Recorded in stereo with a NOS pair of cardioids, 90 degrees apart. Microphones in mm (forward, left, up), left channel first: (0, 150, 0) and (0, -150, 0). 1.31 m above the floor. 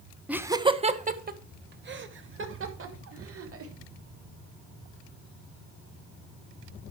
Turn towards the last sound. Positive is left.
turn(degrees=-50)